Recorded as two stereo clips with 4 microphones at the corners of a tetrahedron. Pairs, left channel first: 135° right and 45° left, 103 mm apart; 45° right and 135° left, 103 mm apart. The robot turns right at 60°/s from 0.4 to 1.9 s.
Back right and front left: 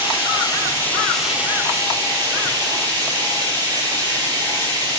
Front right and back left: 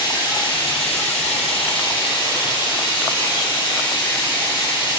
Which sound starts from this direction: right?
Running water, at 0.0 s.